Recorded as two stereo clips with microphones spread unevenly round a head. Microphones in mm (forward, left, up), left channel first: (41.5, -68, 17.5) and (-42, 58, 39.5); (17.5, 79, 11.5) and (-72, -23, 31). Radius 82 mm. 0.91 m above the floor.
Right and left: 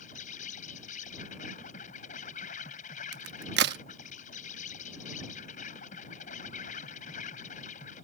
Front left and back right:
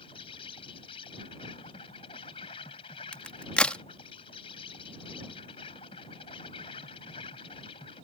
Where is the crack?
130° left.